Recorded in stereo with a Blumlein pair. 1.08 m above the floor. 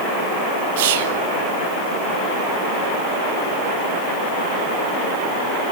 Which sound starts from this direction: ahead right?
Whispering, at 0.8 s.